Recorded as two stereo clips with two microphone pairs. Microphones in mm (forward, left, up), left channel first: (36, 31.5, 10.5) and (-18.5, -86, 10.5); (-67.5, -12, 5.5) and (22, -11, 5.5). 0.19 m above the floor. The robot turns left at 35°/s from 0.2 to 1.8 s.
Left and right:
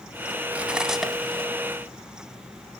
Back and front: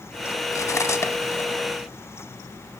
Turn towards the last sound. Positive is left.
turn(degrees=130)